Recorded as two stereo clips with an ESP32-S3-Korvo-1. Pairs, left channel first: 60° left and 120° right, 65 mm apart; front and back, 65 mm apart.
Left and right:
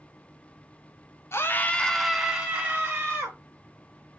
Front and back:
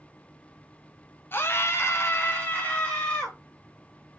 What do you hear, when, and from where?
1.3 s a scream: 35° left, 0.5 m; by 3.4 s 65° right, 1.0 m